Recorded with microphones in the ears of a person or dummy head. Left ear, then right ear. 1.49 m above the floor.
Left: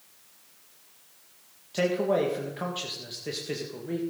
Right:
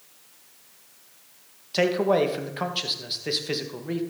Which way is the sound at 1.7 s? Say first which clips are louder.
Right 4 dB; 25° right (ahead or behind).